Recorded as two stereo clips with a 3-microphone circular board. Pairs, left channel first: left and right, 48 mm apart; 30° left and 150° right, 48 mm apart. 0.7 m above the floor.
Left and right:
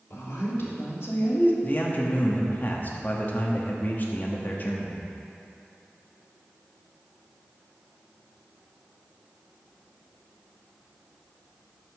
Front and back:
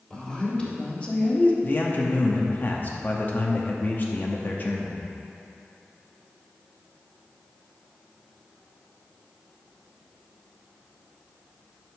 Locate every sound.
0.1 s a woman speaking: 95° left, 2.0 m; by 1.5 s 70° left, 0.8 m
1.6 s a man speaking: 60° left, 0.9 m